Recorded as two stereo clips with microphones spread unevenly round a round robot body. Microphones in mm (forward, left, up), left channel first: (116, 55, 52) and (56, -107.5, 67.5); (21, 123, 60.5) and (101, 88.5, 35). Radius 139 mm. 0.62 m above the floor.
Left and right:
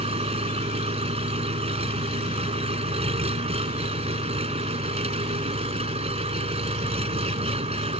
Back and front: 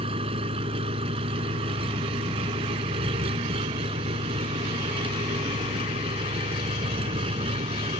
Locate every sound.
0.0 s an engine running: 55° right